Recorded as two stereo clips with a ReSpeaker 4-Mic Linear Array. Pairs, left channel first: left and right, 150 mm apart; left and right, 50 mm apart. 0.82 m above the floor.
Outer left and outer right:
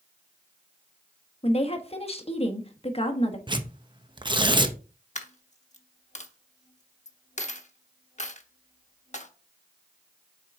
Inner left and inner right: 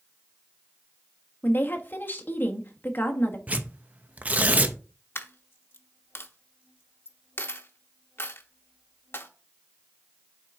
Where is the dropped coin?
50° left (ahead or behind), 0.9 m.